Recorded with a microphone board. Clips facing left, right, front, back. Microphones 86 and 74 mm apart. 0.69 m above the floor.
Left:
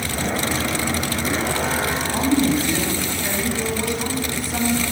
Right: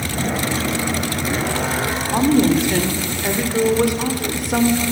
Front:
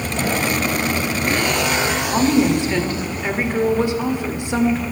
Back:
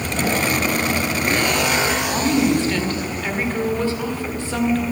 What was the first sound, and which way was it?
A woman speaking, 70° right.